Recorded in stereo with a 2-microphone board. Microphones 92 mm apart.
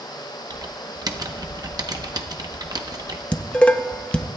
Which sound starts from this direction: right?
Typing on a keyboard, at 0.5 s.